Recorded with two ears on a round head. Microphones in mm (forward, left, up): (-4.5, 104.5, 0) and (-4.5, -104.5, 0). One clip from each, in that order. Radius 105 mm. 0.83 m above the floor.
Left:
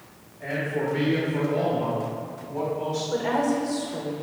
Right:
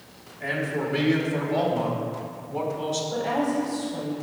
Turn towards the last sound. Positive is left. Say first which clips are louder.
# left 3 dB
turn(degrees=50)  # may be behind; listen again after turning